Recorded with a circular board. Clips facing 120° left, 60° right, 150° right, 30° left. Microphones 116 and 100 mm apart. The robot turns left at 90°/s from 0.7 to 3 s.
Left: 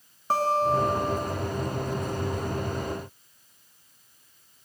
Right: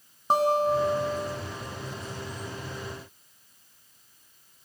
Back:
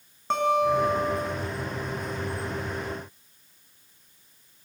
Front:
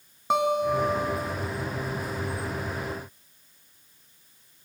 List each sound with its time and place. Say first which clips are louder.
0.3 s a guitar: right 1 dB, back 1 dB; 30° right, 0.6 m; by 1.4 s 90° right, 0.6 m